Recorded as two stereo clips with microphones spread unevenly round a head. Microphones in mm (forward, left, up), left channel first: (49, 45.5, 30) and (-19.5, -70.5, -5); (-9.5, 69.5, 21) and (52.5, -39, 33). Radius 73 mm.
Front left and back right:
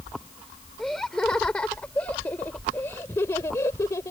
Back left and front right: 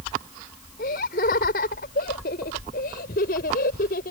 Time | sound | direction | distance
0.8 | laughter | 145° left | ?